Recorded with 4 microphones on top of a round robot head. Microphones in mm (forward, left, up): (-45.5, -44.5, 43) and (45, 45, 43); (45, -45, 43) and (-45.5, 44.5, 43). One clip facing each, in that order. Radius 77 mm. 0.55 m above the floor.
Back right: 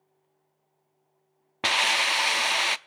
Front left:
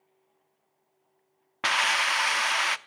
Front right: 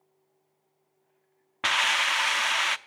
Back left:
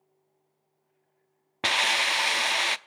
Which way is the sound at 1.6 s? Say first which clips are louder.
Even, even; 175° left.